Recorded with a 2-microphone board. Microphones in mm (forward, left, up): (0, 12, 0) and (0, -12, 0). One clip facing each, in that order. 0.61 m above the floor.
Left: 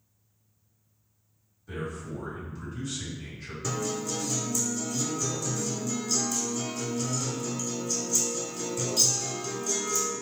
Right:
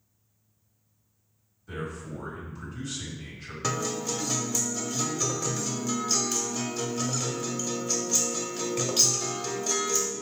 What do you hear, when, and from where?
1.7 s a man speaking: 5° left (ahead or behind), 1.9 m
3.6 s a guitar: 55° right (ahead or behind), 0.7 m